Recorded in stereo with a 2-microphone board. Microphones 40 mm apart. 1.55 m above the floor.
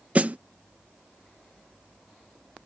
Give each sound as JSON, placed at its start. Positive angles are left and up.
{"t": 0.1, "sound": "a snare drum", "side_deg": -35}